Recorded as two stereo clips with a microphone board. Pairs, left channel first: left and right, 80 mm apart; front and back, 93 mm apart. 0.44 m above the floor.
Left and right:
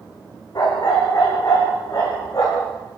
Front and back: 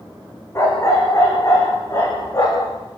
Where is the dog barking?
55° left, 9.5 m; by 2.7 s 45° left, 11 m.